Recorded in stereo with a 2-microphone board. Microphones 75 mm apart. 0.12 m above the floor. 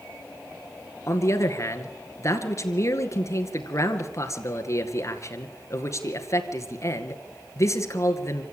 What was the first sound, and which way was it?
A man speaking, 45° left (ahead or behind).